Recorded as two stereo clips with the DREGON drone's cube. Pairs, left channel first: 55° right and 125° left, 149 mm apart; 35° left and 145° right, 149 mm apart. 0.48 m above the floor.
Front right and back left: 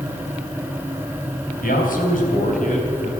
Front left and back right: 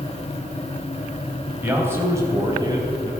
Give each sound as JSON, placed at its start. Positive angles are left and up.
{"t": 1.6, "sound": "a man speaking", "azimuth_deg": -70, "distance_m": 3.0}